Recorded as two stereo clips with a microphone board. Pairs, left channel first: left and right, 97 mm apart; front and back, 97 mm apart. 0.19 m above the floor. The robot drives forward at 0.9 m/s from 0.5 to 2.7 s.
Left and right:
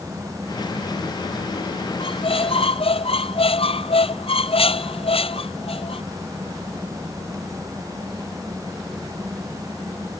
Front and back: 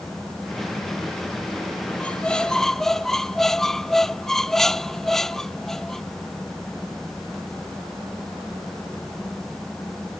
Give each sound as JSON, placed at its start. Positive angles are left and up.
{"t": 2.0, "sound": "a squeak", "azimuth_deg": 75}